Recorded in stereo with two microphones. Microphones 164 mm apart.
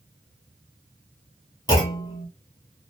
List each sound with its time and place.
1.7 s a clunk: 25° left (ahead or behind), 1.2 m